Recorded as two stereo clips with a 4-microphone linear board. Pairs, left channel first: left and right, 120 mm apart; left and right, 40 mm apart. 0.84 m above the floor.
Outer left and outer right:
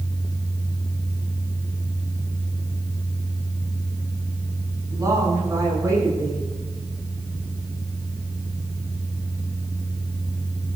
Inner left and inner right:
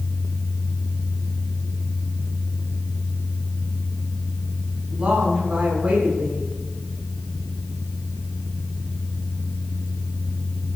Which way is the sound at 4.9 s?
30° right (ahead or behind).